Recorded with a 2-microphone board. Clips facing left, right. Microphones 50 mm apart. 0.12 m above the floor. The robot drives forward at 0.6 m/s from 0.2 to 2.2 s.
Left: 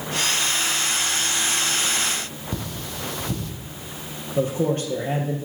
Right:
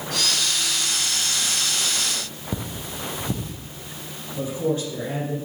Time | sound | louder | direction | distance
2.5 | cutlery clinking | right 1 dB | 15° right (ahead or behind) | 2.5 m
4.4 | a man speaking | left 3 dB | 50° left (ahead or behind) | 3.5 m